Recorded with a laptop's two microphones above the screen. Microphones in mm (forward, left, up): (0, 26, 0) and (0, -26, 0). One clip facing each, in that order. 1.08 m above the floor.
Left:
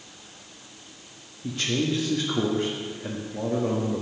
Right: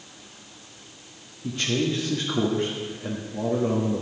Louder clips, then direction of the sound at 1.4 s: Right 1 dB; centre (ahead or behind).